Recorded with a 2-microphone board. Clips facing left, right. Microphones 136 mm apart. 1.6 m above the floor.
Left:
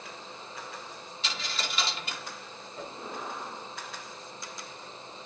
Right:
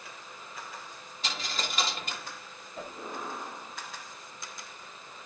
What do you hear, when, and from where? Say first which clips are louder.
1.2 s a dropped coin: right 1 dB; 45° right (ahead or behind), 1.9 m
2.8 s a whoosh: even; 70° right (ahead or behind), 3.5 m